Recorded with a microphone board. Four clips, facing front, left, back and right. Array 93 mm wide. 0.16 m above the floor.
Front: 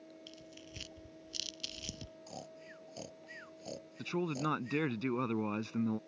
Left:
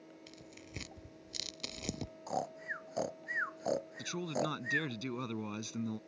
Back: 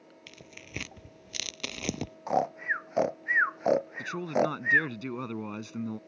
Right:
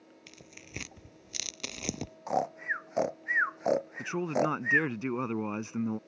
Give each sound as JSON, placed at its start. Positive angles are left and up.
{"t": 0.3, "sound": "tearing paper", "azimuth_deg": -165}
{"t": 2.3, "sound": "snoring", "azimuth_deg": -160}
{"t": 4.0, "sound": "a man speaking", "azimuth_deg": -75}